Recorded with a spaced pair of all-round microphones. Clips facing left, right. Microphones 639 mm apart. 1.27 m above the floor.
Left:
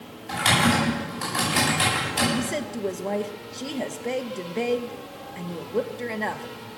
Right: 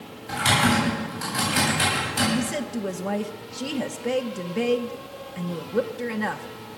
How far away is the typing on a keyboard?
About 9.5 m.